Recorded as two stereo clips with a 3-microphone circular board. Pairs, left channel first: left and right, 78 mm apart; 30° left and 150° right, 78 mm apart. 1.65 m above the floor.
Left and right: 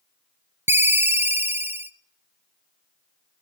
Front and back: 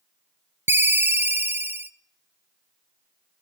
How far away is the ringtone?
About 0.6 m.